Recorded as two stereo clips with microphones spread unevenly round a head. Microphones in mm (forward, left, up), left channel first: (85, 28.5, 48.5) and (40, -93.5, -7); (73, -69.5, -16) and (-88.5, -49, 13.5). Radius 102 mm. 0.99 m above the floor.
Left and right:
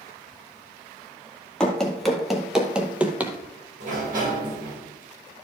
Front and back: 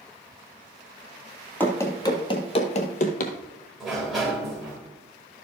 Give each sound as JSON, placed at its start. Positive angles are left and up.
{"t": 1.6, "sound": "running footsteps", "azimuth_deg": 85, "distance_m": 1.1}
{"t": 3.8, "sound": "a sliding door", "azimuth_deg": -95, "distance_m": 4.0}